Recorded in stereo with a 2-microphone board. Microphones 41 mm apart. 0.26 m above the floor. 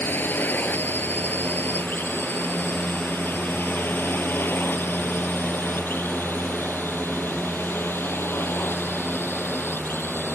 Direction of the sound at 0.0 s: 50° left (ahead or behind).